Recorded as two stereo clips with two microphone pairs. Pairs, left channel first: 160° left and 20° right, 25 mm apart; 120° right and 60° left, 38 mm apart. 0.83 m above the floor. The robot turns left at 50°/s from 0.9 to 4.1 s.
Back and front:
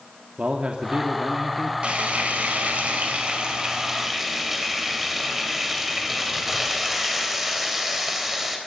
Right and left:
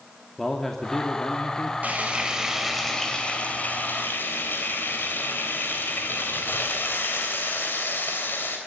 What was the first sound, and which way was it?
A man speaking, 45° right.